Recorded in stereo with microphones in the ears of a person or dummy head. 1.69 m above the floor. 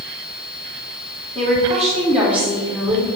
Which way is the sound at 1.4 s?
40° right (ahead or behind).